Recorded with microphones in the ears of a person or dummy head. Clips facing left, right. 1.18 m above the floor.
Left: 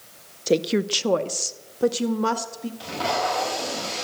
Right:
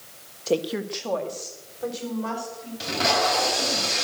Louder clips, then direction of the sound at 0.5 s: Left 4 dB; 15° left (ahead or behind).